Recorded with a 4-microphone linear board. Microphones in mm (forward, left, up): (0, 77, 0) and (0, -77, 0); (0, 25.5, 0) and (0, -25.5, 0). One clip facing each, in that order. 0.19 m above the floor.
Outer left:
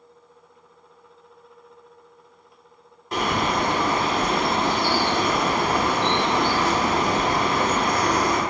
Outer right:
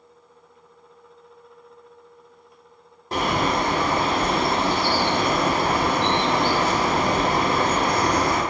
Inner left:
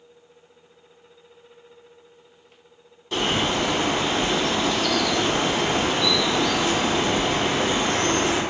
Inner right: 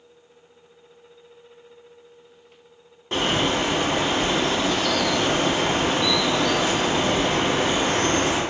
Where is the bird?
35° right (ahead or behind), 1.0 m.